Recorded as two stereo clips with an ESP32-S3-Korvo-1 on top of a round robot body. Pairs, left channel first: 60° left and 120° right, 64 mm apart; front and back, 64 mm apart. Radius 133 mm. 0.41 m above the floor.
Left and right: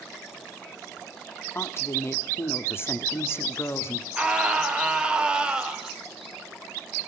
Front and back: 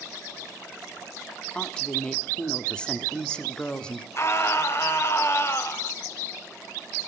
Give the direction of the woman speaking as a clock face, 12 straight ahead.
10 o'clock.